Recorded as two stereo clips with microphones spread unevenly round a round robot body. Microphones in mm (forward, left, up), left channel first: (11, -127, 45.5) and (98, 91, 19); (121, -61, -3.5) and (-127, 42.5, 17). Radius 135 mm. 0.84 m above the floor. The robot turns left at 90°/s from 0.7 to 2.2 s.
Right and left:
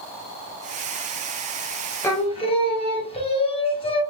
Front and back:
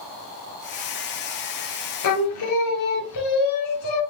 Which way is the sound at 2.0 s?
30° right.